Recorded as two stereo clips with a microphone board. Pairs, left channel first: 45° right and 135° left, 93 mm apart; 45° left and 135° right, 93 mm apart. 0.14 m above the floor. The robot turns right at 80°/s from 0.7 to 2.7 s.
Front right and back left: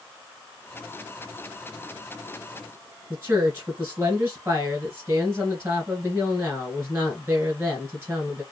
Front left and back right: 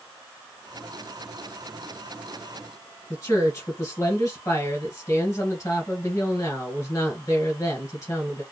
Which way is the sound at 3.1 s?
80° left.